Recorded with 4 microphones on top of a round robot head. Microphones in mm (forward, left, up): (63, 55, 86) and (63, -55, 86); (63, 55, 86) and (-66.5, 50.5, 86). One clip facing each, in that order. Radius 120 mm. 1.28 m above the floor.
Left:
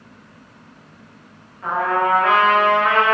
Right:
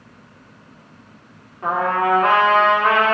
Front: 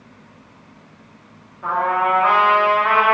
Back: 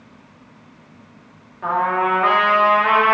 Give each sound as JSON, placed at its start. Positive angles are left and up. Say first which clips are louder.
{"t": 1.6, "sound": "a trumpet", "louder": "even, even", "azimuth_deg": -150, "distance_m": 1.9}